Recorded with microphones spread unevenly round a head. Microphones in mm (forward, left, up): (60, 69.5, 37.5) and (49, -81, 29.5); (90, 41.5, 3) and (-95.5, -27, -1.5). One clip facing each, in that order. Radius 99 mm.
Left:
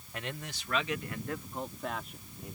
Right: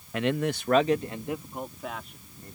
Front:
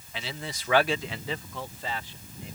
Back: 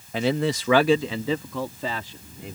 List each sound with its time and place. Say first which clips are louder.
0.1 s a man speaking: right 15 dB, back 16 dB; 110° right; by 2.6 s 170° left